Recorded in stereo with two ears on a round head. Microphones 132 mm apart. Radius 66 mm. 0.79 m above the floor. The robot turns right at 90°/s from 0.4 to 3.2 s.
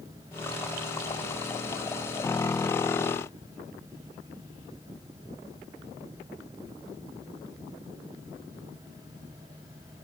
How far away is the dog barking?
No dog barking in this recording.